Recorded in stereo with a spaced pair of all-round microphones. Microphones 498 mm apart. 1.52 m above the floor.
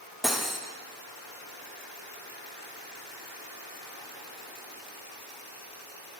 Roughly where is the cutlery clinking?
Centre.